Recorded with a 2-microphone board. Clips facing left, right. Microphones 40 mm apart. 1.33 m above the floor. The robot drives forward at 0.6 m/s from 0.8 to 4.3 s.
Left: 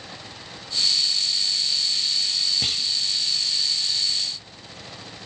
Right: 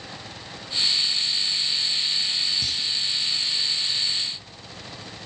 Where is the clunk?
50° left (ahead or behind), 1.9 m; by 2.9 s 55° left (ahead or behind), 1.9 m.